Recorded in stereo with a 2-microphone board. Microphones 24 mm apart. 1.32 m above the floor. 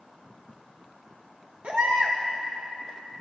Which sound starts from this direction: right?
A baby crying, at 1.6 s.